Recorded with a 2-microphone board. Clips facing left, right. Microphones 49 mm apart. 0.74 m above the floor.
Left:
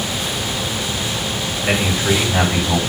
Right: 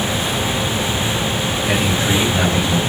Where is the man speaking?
80° left, 4.5 m.